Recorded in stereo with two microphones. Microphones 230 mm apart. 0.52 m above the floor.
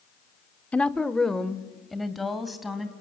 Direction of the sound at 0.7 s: 5° left (ahead or behind).